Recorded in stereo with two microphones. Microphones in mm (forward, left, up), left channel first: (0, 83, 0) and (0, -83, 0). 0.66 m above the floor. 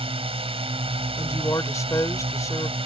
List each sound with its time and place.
0.0 s a drone: 35° right (ahead or behind)
1.2 s a woman speaking: 20° left (ahead or behind)